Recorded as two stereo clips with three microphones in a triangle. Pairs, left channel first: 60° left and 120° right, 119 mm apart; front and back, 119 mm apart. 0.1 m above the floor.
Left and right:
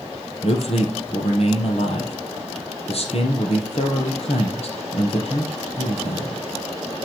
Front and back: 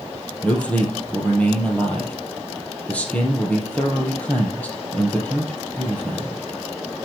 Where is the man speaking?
80° left, 2.5 m.